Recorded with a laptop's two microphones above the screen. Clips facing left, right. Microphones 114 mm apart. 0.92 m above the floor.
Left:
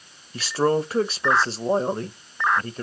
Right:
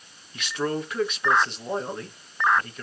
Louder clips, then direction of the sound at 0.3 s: Left 7 dB; 35° left (ahead or behind).